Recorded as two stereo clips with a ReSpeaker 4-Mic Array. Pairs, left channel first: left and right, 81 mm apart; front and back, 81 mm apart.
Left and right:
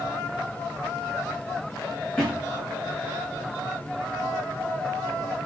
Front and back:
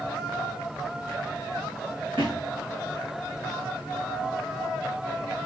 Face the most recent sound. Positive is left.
turn(degrees=170)